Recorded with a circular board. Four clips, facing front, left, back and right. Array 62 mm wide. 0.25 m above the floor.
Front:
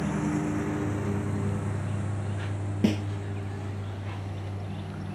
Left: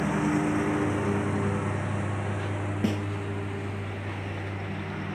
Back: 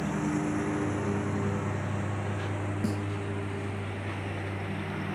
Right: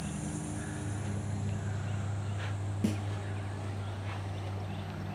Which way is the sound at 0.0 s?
90° left.